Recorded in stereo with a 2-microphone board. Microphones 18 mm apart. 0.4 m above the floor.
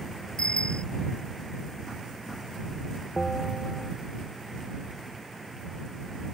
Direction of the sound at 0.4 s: 60° left (ahead or behind).